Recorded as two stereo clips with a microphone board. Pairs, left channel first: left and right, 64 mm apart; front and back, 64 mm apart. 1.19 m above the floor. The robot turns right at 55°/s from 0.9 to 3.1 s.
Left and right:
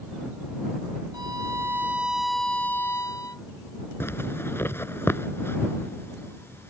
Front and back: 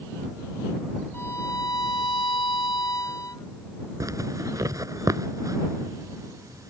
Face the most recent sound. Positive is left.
turn(degrees=145)